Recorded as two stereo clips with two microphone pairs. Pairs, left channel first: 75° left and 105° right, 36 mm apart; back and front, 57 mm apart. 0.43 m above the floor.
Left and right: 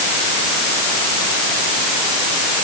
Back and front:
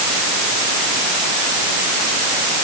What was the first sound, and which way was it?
Only background noise.